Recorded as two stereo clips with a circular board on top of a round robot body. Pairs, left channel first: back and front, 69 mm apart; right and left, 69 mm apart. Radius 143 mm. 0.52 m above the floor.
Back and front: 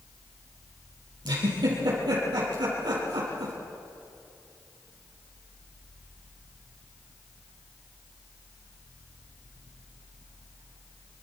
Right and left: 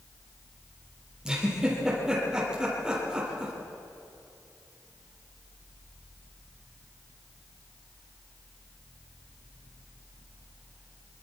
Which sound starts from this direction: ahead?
A giggle, at 1.2 s.